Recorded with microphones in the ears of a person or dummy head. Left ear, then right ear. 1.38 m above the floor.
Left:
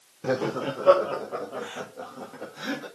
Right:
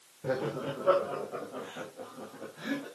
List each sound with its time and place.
0.2 s laughter: 75° left (ahead or behind), 1.4 m; by 2.9 s 80° left, 3.5 m